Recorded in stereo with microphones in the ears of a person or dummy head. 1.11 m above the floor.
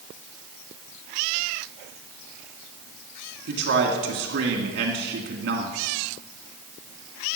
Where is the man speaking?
60° right (ahead or behind), 2 m.